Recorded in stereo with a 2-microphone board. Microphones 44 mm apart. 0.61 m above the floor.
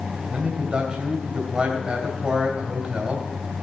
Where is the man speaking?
25° right (ahead or behind), 3 m.